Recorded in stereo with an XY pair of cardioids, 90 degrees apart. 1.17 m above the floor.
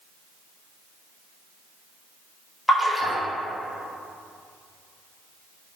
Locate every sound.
2.7 s a splash: 10° left, 0.6 m